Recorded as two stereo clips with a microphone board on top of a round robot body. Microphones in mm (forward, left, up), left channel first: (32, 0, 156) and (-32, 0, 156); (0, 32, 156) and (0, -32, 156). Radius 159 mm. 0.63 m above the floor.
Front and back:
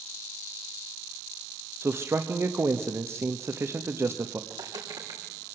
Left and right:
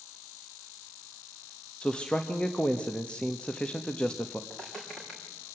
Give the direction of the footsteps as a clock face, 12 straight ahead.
6 o'clock.